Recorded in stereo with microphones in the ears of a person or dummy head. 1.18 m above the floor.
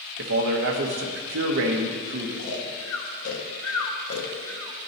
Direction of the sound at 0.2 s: 60° right (ahead or behind).